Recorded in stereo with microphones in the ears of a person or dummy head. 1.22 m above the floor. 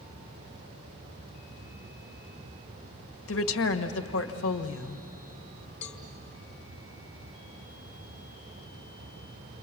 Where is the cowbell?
35° left (ahead or behind), 1.5 m.